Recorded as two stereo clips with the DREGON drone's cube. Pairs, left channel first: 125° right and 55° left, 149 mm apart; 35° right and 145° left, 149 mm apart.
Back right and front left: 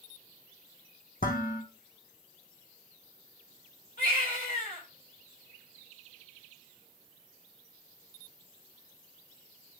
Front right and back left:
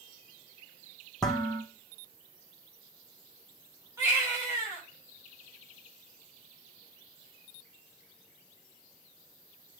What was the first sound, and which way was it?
Dishes clattering, 120° right.